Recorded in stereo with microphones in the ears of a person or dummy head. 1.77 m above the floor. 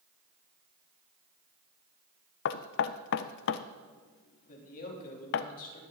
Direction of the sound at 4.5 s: 55° left (ahead or behind).